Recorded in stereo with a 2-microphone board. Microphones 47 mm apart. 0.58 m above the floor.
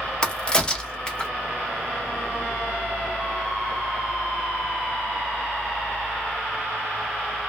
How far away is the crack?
About 0.6 m.